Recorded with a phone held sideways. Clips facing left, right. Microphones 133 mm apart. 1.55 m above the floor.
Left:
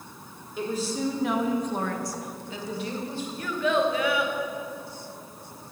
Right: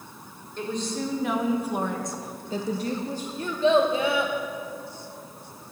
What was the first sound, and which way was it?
A woman speaking, 5° left (ahead or behind).